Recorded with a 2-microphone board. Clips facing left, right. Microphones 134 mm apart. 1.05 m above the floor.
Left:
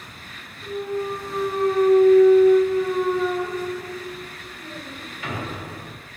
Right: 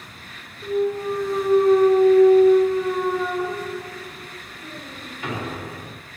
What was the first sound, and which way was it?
A clunk, 30° right (ahead or behind).